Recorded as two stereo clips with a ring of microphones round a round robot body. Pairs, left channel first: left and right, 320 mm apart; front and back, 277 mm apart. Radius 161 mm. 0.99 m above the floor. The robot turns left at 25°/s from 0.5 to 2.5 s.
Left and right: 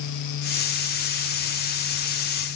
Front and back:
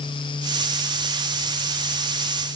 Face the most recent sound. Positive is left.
No sound to turn to.